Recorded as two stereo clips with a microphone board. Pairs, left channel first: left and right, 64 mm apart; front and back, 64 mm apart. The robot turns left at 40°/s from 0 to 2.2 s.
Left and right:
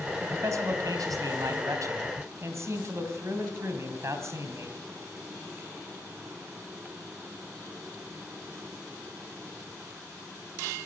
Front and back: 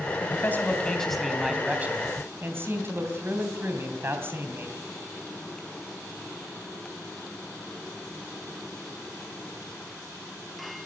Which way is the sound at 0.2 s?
50° right.